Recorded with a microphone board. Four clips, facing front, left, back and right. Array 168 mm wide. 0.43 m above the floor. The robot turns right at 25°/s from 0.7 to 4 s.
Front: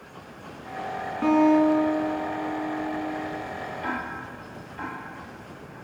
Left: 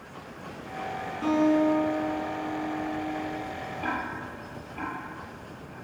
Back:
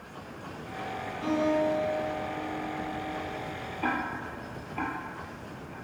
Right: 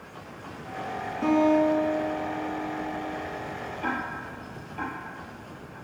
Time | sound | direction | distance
1.2 | a guitar | straight ahead | 4.5 m
3.8 | ticking | straight behind | 5 m